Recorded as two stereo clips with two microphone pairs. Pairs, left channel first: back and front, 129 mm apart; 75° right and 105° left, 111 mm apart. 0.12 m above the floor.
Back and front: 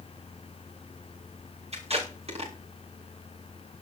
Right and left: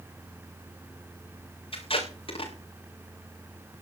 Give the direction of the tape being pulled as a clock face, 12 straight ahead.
1 o'clock.